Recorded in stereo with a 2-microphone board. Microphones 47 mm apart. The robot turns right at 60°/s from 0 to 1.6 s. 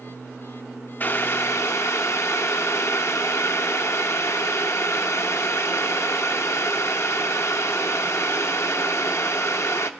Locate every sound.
1.0 s boiling: 45° left, 0.6 m; by 9.9 s 80° left, 0.6 m